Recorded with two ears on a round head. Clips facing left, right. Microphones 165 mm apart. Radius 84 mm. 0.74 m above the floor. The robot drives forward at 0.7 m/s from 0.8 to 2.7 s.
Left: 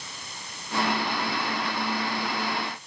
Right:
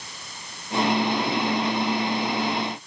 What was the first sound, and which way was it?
Only background noise.